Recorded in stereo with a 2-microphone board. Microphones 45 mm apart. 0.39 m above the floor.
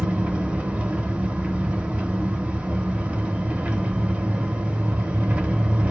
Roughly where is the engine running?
Right.